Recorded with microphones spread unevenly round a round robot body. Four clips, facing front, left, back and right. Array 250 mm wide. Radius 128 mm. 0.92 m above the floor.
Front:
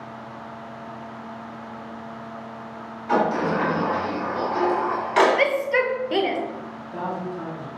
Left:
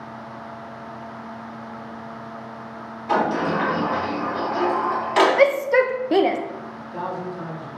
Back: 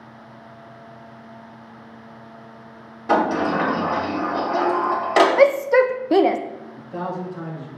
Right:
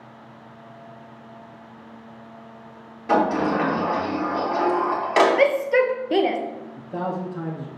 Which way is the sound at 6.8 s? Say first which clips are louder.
Right 2 dB, back 2 dB; 105° right.